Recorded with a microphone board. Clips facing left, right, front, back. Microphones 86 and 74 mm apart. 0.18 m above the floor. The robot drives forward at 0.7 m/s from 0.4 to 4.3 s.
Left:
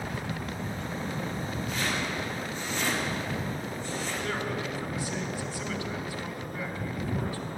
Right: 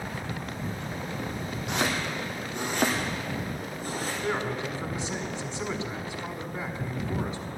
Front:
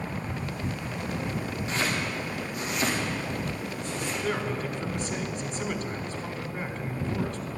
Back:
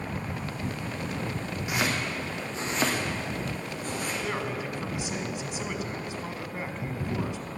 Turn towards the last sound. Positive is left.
turn(degrees=-115)